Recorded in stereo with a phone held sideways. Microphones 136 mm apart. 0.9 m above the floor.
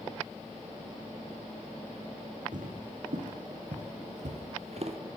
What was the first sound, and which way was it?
Footsteps, 65° right (ahead or behind).